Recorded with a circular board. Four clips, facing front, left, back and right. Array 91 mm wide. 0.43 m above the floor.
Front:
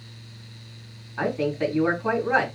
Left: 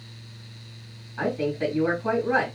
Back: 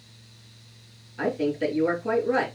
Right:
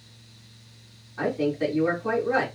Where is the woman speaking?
10° left, 4.5 m.